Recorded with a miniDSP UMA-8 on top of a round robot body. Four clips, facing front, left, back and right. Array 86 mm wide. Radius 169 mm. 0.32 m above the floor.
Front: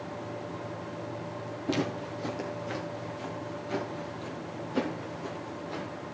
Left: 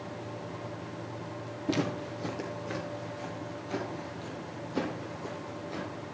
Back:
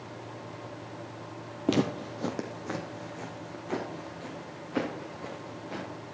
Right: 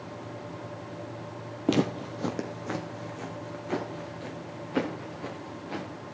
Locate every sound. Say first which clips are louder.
1.7 s footsteps: right 5 dB, back 4 dB; 125° right, 0.9 m; by 5.9 s 115° right, 4 m